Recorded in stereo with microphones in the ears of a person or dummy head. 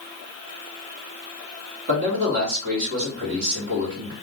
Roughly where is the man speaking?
Right.